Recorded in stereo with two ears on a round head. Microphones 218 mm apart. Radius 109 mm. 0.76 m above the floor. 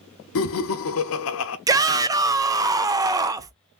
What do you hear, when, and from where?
0.3 s laughter: 60° left (ahead or behind), 0.7 m
1.7 s a shout: 15° right (ahead or behind), 0.5 m